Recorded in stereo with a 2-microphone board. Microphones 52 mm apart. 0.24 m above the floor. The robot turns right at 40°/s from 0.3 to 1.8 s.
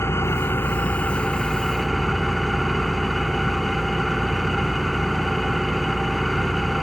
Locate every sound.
0.0 s an engine running: 120° left, 1.6 m; by 6.8 s straight behind, 1.6 m